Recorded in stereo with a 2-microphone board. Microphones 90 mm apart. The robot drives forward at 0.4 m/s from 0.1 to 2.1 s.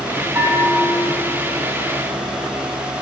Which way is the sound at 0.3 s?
25° right (ahead or behind).